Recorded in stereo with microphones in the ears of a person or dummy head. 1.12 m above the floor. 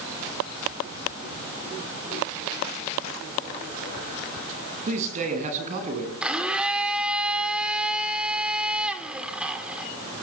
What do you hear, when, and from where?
4.9 s a man speaking: 40° right (ahead or behind), 8.5 m
6.2 s a blender: 5° right (ahead or behind), 3 m